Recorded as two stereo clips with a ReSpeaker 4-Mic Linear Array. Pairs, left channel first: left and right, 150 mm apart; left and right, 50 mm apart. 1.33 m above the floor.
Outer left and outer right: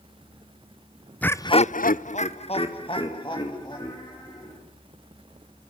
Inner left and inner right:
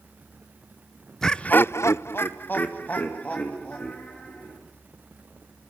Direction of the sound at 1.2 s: 10° left (ahead or behind).